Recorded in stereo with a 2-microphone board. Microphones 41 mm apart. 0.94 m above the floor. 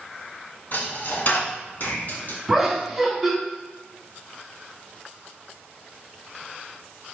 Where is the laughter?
Centre (ahead or behind), 2.5 m.